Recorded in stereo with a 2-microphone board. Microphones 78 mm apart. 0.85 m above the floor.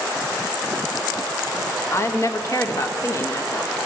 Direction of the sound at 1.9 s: 35° left (ahead or behind).